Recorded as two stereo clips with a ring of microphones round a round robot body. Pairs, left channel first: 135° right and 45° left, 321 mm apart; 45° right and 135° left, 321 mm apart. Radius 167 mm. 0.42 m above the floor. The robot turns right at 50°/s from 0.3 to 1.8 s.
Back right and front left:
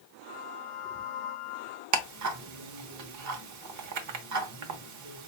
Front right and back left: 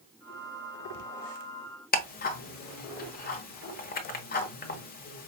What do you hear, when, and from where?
1.9 s ticking: 15° left, 0.9 m